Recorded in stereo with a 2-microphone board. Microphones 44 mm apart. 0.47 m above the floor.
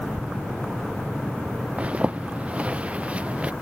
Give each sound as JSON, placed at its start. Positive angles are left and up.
{"t": 1.8, "sound": "a zipper", "side_deg": -25}